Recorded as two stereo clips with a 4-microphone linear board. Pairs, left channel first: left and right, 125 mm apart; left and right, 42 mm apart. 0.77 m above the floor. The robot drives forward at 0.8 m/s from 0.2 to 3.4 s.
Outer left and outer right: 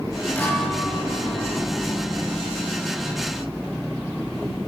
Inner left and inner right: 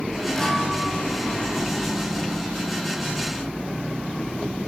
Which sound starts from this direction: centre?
A guitar, at 0.3 s.